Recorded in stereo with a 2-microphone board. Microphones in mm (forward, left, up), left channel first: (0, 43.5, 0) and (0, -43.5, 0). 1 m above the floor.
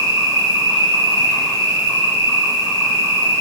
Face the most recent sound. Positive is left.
turn(degrees=-45)  # may be behind; listen again after turning